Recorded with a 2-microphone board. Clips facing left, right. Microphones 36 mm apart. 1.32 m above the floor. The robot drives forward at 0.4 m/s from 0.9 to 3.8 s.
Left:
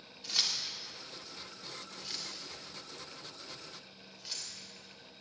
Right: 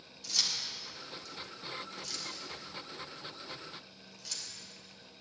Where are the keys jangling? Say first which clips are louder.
Left 1 dB; 30° left (ahead or behind), 2.0 m; by 4.5 s 20° left (ahead or behind), 3 m.